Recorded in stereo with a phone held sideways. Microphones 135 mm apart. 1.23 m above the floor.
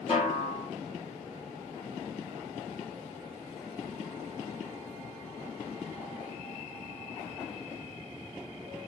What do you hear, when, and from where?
0.1 s a snare drum: 50° left (ahead or behind), 1.3 m